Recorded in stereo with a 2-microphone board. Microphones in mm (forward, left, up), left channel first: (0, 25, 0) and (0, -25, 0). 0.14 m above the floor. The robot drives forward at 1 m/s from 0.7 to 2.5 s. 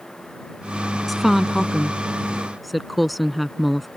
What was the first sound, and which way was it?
A woman speaking, centre (ahead or behind).